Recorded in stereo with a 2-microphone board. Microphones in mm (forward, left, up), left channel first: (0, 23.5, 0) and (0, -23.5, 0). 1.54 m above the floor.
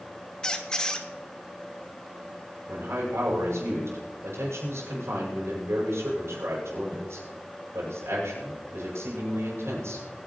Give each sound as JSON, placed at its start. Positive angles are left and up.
{"t": 0.4, "sound": "a squeak", "side_deg": 15, "distance_m": 1.2}
{"t": 2.7, "sound": "a man speaking", "side_deg": -85, "distance_m": 7.5}